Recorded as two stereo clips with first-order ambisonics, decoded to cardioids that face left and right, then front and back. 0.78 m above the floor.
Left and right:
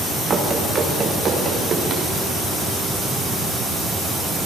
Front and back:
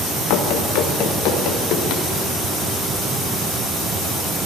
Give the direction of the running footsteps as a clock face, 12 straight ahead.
1 o'clock.